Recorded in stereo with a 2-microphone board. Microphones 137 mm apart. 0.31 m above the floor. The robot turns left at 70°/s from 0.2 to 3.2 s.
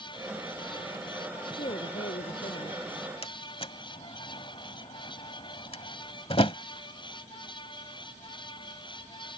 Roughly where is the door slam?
Left.